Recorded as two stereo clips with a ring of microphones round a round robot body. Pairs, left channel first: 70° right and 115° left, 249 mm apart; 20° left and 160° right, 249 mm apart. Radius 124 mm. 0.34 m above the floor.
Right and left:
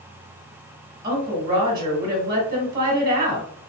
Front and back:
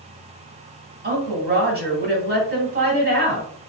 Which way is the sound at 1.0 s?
Straight behind.